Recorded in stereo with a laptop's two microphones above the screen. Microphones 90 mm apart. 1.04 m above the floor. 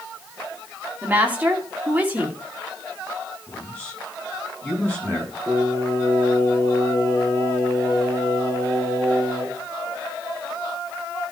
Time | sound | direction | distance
1.0 | a woman speaking | 20° right (ahead or behind) | 2.5 m
3.5 | a man speaking | 15° left (ahead or behind) | 8 m
5.5 | singing | 25° left (ahead or behind) | 6 m